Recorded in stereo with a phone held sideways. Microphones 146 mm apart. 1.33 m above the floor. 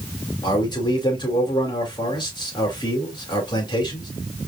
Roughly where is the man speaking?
Left.